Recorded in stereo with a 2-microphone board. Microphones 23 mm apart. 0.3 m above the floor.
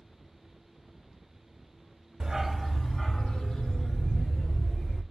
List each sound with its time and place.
2.2 s a dog barking: 35° right (ahead or behind), 0.5 m; by 5.0 s 45° left (ahead or behind), 3 m